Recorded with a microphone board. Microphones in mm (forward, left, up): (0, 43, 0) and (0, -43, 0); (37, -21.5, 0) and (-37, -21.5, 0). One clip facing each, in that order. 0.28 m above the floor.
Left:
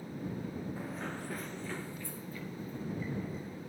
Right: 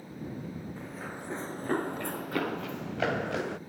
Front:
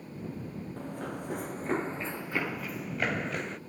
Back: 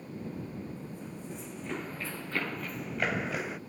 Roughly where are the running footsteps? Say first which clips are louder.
Even, front 5 dB; ahead.